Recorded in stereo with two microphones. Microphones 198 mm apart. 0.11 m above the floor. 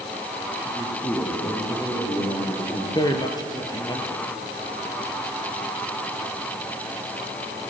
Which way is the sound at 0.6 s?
25° left (ahead or behind).